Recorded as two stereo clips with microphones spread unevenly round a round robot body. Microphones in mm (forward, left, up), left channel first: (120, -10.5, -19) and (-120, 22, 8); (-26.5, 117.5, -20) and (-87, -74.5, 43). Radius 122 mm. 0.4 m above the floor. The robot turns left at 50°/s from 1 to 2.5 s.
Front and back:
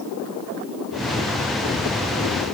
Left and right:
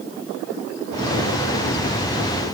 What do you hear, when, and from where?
Only background noise.